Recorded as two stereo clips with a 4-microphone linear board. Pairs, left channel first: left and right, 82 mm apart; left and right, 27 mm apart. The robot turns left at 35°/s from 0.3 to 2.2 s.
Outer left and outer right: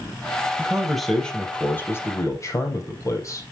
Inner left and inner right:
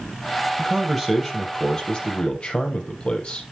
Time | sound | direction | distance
0.6 | a man speaking | 165° right | 3 m